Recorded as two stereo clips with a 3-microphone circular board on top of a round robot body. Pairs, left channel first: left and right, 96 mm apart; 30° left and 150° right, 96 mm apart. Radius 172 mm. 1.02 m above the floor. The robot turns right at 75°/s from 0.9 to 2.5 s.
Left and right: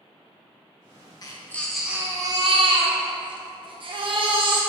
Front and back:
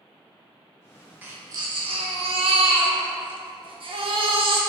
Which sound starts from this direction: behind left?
A baby crying, at 1.2 s.